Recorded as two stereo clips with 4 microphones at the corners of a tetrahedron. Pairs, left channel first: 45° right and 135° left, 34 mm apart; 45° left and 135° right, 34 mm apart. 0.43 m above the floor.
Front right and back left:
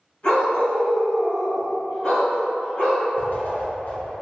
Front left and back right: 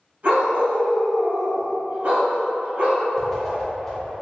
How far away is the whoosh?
About 0.8 m.